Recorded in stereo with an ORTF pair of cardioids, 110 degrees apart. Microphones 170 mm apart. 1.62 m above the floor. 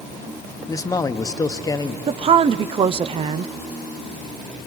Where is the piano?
I don't hear a piano.